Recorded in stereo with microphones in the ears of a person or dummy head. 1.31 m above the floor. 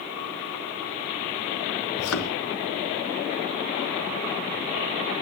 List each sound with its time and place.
2.0 s a thud: 75° left (ahead or behind), 4 m